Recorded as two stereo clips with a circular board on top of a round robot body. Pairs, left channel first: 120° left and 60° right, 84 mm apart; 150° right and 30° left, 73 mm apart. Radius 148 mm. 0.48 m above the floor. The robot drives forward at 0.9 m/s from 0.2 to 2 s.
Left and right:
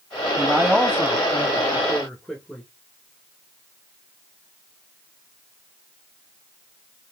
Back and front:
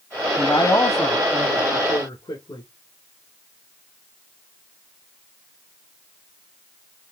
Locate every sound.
0.4 s a man speaking: 145° right, 1.1 m; by 2.6 s 170° right, 2 m